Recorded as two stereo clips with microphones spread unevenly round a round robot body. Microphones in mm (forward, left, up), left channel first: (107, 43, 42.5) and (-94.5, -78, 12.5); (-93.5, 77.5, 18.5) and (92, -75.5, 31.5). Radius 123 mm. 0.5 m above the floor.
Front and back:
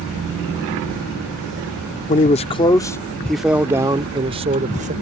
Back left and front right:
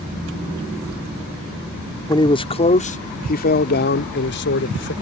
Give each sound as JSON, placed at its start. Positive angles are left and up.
{"t": 2.1, "sound": "a man speaking", "azimuth_deg": 80}